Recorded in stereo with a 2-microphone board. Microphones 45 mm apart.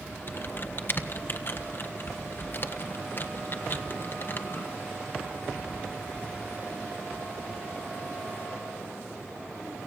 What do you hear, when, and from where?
0.3 s typing on a keyboard: 45° left (ahead or behind), 1.3 m